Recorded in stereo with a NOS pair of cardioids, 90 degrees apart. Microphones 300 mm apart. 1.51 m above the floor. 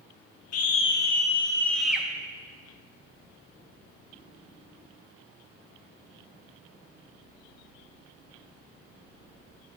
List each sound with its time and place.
0.5 s a scream: 65° left, 1.4 m; by 2.1 s 5° right, 2.0 m